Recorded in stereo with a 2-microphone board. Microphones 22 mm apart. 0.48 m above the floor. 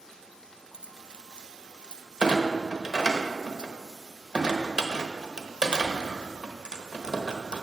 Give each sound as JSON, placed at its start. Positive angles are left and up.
{"t": 0.7, "sound": "keys jangling", "side_deg": -50, "distance_m": 0.7}
{"t": 2.2, "sound": "a clunk", "side_deg": -40, "distance_m": 0.9}